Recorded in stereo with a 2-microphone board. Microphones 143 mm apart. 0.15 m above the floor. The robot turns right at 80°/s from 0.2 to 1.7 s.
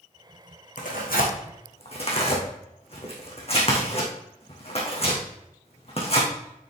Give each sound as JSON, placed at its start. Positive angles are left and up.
{"t": 0.8, "sound": "tearing paper", "side_deg": 60, "distance_m": 3.0}